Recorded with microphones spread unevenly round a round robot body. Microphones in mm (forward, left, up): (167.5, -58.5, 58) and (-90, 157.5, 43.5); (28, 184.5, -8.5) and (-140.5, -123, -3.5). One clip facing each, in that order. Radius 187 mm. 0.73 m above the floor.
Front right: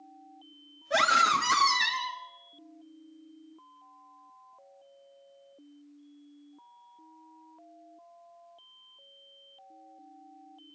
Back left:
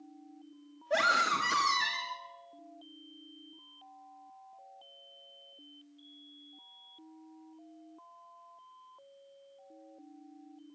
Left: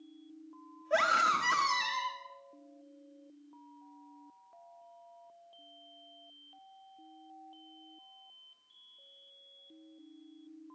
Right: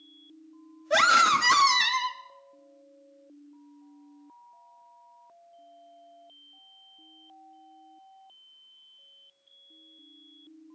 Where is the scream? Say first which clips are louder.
Front right 2 dB, right 4 dB; 110° right, 0.9 m.